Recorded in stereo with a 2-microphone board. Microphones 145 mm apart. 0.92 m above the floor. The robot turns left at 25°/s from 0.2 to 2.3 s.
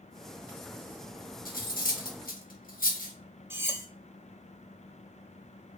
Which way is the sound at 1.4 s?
75° left (ahead or behind).